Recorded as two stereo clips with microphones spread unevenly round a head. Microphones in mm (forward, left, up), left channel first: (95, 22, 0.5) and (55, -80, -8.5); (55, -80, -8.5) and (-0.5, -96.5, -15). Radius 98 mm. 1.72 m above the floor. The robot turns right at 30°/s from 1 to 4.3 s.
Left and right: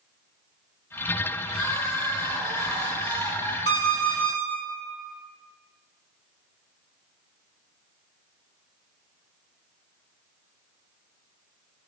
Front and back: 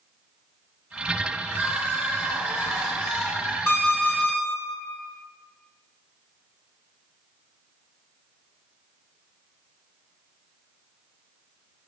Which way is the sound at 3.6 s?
80° left.